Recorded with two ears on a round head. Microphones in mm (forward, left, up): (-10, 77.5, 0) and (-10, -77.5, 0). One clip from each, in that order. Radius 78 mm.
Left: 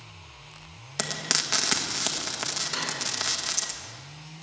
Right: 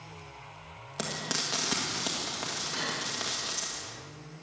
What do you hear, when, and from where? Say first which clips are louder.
1.0 s frying: left 5 dB; 45° left (ahead or behind), 1.6 m
2.7 s cutlery clinking: left 3 dB; 55° left (ahead or behind), 7.5 m